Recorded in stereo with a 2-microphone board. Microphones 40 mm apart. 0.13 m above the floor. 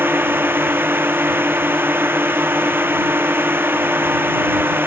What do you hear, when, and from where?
0.0 s a drone: 70° right (ahead or behind)